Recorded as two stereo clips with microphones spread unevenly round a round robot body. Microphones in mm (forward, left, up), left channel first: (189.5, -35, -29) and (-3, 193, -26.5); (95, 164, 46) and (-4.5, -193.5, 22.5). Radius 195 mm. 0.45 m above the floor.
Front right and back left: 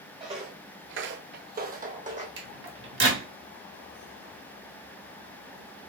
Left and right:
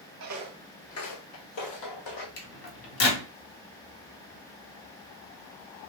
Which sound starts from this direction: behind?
Footsteps, at 0.2 s.